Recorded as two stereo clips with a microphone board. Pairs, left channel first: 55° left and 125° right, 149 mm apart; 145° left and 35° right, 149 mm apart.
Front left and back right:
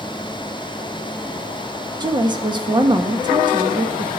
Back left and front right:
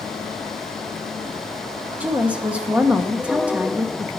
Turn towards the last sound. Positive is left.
turn(degrees=-110)